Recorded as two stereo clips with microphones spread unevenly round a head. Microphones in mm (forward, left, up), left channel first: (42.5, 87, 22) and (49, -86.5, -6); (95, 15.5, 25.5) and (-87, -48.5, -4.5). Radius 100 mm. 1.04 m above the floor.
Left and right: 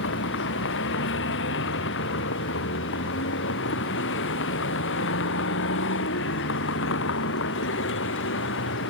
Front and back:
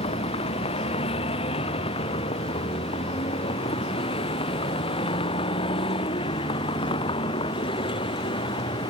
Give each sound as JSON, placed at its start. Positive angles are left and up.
{"t": 0.0, "sound": "a vehicle", "azimuth_deg": 85}